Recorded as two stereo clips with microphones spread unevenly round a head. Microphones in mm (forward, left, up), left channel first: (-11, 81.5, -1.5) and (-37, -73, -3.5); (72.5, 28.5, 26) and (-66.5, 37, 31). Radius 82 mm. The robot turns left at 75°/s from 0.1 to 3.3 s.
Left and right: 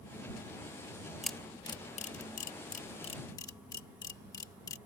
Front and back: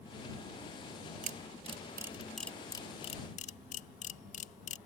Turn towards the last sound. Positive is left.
turn(degrees=15)